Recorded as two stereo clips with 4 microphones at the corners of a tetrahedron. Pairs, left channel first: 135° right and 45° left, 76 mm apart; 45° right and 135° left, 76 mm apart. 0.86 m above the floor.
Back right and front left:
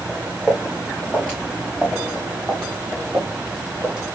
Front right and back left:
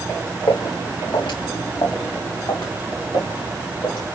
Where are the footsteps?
30° right, 4.5 m.